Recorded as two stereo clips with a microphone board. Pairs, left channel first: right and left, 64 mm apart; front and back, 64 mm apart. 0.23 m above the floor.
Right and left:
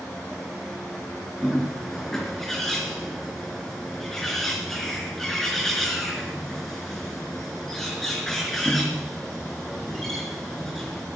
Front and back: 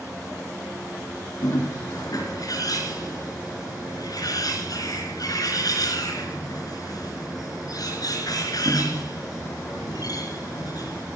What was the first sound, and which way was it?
A bird, 5° right.